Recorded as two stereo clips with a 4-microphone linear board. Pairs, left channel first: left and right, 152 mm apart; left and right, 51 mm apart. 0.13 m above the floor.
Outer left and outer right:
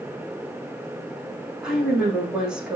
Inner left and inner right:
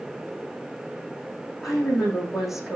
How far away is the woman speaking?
About 6 m.